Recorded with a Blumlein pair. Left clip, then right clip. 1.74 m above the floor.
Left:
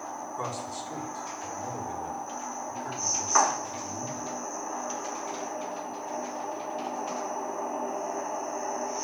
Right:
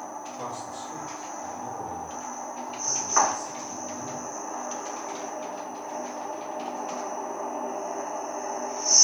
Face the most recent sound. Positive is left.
turn(degrees=65)